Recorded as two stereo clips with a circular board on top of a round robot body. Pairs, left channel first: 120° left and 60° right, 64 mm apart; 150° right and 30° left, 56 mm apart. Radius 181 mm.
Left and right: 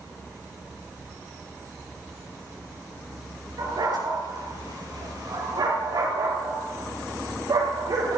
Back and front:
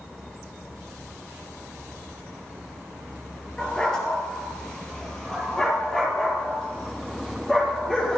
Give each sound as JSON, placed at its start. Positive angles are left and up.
{"t": 3.6, "sound": "a dog barking", "azimuth_deg": -75, "distance_m": 6.0}